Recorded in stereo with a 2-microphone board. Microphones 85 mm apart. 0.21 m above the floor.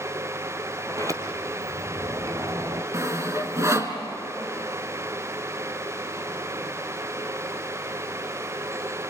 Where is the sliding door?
40° right (ahead or behind), 1.8 m.